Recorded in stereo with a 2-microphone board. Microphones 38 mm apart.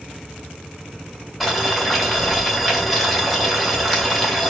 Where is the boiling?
Centre (ahead or behind), 2.5 m.